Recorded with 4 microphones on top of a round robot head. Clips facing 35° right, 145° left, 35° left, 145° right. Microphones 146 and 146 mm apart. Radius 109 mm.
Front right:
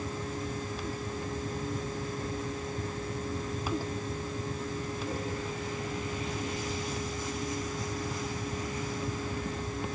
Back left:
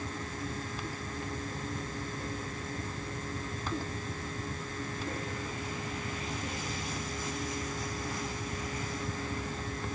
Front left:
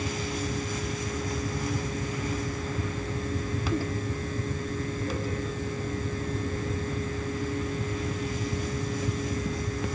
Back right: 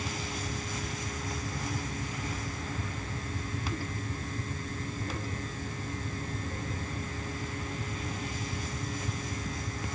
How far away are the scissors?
I don't hear scissors.